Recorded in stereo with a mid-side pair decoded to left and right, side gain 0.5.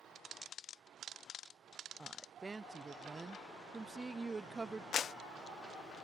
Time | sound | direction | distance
2.0 | a woman speaking | 20° right | ?
4.9 | a clap | 55° left | ?